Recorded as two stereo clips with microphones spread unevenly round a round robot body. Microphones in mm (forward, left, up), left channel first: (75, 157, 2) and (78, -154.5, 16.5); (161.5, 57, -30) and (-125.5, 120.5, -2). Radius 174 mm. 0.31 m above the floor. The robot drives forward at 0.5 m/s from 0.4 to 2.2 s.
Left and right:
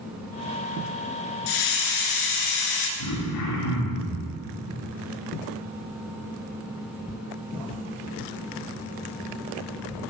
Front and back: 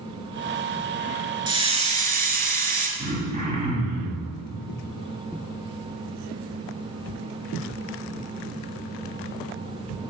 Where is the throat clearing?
100° left, 2 m.